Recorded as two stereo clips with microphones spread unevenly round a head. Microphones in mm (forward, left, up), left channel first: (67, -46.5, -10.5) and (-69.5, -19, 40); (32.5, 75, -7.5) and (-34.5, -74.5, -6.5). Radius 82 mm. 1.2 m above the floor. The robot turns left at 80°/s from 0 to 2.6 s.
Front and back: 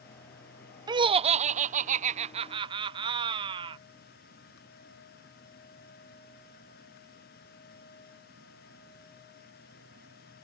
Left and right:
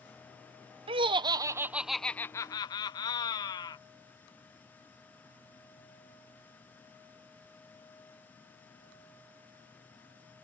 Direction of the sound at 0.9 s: 120° right.